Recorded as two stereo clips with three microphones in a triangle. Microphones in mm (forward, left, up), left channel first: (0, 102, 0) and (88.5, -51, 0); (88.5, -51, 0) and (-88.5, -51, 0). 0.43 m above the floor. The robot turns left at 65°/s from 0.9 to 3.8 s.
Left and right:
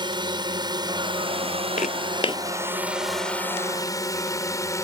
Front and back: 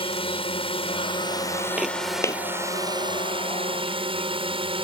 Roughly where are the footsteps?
Left.